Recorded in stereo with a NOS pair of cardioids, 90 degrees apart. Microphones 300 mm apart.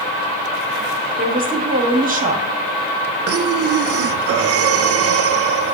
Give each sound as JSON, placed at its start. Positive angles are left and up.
{"t": 1.2, "sound": "a woman speaking", "azimuth_deg": -30, "distance_m": 1.4}
{"t": 3.3, "sound": "breathing", "azimuth_deg": -50, "distance_m": 0.6}